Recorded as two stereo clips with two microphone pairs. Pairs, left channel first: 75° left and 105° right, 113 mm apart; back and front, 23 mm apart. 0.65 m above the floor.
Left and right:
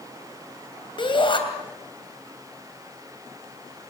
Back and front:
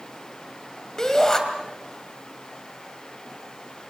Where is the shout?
120° left, 3 m.